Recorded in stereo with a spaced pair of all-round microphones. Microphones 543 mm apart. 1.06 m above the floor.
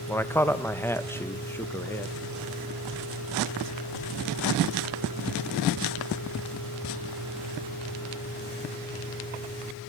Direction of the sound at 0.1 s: 5° left (ahead or behind).